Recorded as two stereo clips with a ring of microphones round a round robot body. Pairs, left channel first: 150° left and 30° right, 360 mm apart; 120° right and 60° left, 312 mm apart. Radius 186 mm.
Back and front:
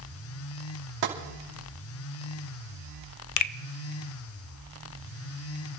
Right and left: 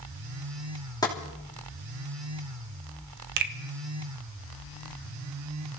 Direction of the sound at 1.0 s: 40° right.